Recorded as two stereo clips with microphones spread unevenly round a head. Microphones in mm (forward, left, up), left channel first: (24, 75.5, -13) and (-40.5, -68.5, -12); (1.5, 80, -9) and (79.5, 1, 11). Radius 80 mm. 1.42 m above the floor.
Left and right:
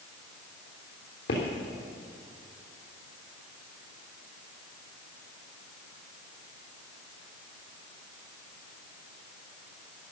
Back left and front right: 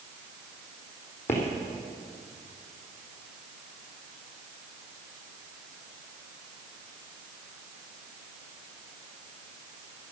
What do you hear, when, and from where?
1.3 s footsteps: 60° left, 3.5 m